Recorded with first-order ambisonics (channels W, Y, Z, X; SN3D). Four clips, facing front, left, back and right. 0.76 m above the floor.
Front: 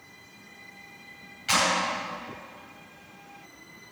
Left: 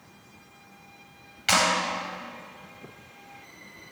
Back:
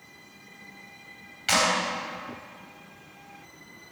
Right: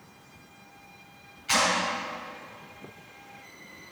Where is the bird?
No bird in this recording.